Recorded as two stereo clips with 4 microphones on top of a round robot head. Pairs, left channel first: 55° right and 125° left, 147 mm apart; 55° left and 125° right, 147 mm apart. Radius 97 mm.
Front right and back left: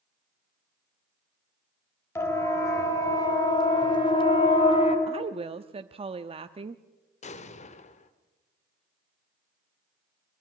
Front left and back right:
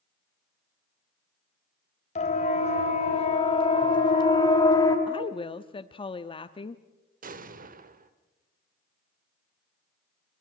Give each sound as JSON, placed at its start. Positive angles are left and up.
{"t": 2.1, "sound": "a siren", "azimuth_deg": 15, "distance_m": 4.0}
{"t": 5.1, "sound": "a woman speaking", "azimuth_deg": 95, "distance_m": 0.7}
{"t": 7.2, "sound": "an explosion", "azimuth_deg": -95, "distance_m": 1.3}